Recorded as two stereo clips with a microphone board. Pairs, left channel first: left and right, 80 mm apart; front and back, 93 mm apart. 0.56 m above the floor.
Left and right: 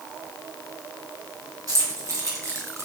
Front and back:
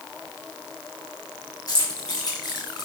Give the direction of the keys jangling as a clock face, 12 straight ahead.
2 o'clock.